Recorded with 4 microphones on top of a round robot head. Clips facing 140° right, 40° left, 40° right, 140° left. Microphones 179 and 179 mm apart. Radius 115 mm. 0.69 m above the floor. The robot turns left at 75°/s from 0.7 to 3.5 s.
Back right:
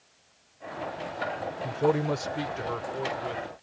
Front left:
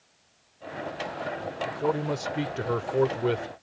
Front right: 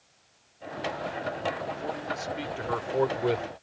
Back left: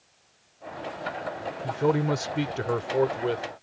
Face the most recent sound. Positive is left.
turn(degrees=25)